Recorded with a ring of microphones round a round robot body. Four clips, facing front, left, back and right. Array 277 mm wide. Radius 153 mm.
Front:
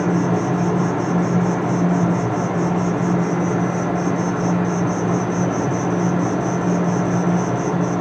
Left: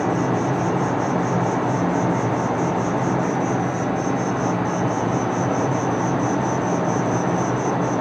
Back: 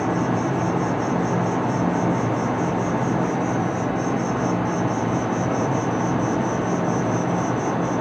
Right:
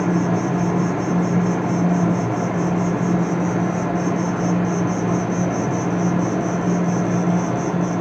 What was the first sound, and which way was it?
An insect, 25° right.